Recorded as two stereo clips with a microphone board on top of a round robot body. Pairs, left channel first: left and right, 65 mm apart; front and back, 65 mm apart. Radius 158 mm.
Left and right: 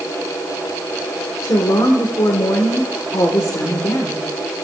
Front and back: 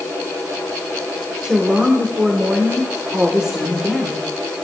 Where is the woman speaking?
105° left, 1.6 m.